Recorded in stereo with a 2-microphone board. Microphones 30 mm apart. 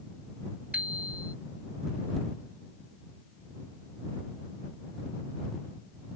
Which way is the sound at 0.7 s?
50° right (ahead or behind).